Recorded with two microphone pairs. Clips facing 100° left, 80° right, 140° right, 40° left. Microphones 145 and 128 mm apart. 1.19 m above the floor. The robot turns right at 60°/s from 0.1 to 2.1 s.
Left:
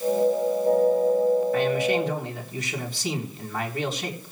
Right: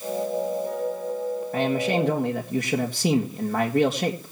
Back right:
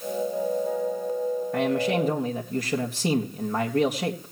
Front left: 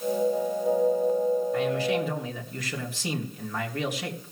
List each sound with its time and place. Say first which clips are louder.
1.5 s a man speaking: left 1 dB, back right 2 dB; 120° right, 1.9 m; by 4.3 s 85° right, 1.9 m